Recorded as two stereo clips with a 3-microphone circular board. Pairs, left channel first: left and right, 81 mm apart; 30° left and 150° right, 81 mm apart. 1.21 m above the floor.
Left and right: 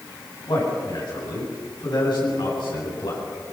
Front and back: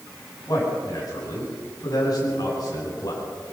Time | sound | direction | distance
0.5 | a man speaking | 70° left | 8.5 m